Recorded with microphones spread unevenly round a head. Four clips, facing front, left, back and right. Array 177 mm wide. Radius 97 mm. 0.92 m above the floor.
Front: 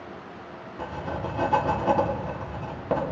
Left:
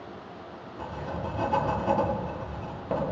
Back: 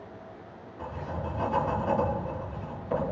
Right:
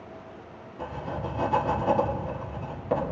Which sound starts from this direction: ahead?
Writing, at 0.8 s.